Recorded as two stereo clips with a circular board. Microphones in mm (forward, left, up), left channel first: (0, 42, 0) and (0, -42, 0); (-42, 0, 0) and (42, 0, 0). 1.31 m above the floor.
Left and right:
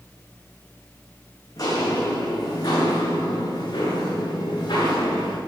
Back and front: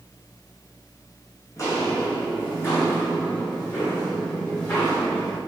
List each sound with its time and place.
1.6 s footsteps: 135° left, 4.5 m; by 5.4 s 120° left, 8.5 m